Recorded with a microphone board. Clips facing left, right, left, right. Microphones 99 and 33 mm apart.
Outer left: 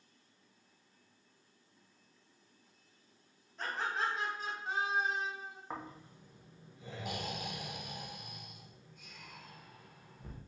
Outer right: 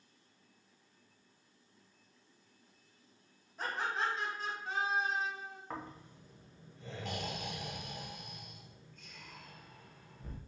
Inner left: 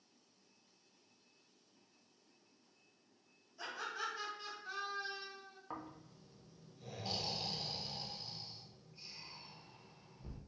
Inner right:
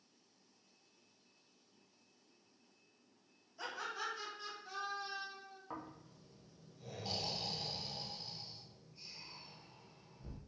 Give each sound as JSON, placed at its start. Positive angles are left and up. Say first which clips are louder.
{"t": 3.6, "sound": "laughter", "louder": "even, even", "side_deg": -5, "distance_m": 1.1}
{"t": 5.7, "sound": "snoring", "louder": "outer left 1 dB, inner left 1 dB", "side_deg": 10, "distance_m": 0.5}